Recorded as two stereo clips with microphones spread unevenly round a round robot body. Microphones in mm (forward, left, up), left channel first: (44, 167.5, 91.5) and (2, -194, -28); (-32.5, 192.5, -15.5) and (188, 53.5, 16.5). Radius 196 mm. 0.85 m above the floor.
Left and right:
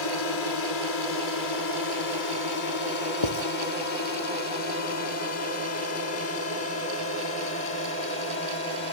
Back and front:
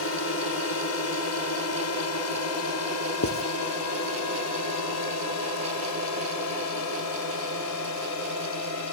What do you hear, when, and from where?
0.0 s a drone: 125° left; by 8.9 s 150° left
3.2 s writing: 110° left